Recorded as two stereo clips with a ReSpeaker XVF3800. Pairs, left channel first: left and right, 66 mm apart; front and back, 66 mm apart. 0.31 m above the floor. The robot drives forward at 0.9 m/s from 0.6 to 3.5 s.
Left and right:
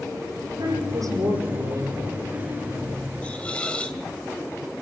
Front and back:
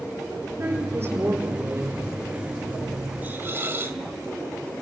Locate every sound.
0.6 s a woman speaking: 120° right, 7.5 m; by 2.1 s 130° right, 8.5 m
3.2 s a hiss: 145° left, 1.5 m; by 4.0 s 155° left, 1.7 m